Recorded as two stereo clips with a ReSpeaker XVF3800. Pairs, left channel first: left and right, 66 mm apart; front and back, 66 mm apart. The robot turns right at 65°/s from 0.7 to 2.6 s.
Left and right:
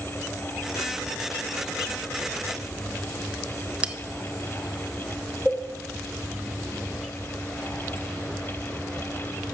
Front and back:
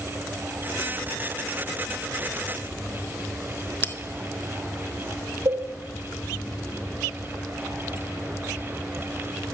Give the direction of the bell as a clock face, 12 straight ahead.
1 o'clock.